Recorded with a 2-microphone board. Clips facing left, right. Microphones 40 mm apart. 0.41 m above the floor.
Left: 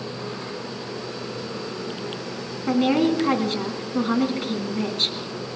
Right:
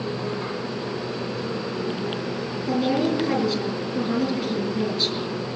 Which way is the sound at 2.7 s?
50° left (ahead or behind).